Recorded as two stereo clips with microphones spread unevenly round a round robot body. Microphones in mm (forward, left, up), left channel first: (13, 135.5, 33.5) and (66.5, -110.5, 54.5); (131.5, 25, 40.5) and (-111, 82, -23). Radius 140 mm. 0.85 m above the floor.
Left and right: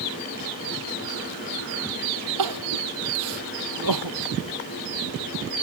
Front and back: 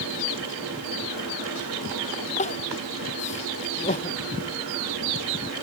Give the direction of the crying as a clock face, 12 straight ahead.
3 o'clock.